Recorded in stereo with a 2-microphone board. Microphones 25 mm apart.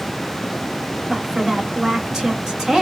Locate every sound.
1.1 s a woman speaking: 25° right (ahead or behind), 1.3 m